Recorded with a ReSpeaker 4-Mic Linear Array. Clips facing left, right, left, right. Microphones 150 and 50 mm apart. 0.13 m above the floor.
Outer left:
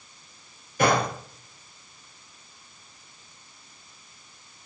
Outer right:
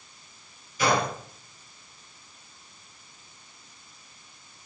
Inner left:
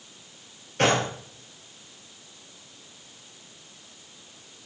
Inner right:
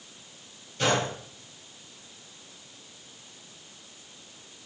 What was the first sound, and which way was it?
A gunshot, 60° left (ahead or behind).